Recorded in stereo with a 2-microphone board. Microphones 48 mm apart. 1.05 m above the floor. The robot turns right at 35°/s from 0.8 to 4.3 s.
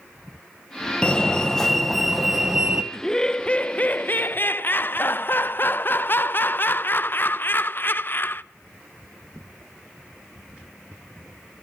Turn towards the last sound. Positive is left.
turn(degrees=55)